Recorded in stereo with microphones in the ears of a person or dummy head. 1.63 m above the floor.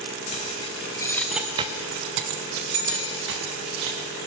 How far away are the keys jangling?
About 1.5 m.